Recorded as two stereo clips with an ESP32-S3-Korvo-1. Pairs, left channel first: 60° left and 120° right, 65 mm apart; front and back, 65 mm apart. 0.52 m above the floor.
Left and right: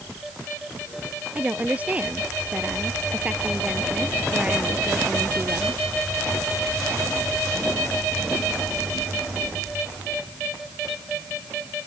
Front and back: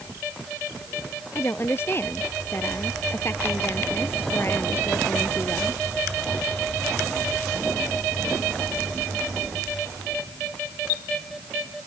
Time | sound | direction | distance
1.4 | a woman speaking | 55° right | ?